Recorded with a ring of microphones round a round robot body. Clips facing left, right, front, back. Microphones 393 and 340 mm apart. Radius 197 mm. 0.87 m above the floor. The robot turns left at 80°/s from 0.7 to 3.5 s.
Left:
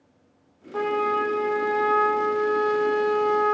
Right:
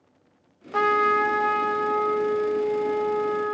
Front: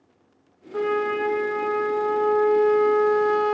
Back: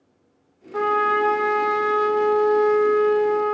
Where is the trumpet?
100° right, 0.6 m; by 3.5 s 40° left, 0.6 m.